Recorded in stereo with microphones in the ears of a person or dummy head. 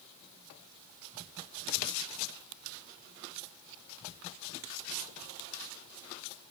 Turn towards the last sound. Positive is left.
No sound to turn to.